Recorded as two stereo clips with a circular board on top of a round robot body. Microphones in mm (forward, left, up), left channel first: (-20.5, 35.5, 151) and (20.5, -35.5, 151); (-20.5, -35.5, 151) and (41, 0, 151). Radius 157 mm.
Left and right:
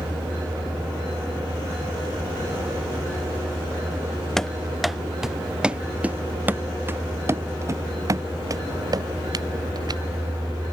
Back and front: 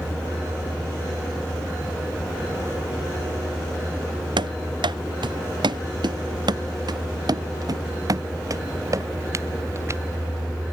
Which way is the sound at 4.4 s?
35° left.